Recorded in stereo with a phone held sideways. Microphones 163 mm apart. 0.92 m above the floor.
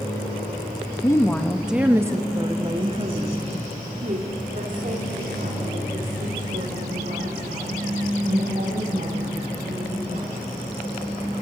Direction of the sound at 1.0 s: 20° left (ahead or behind).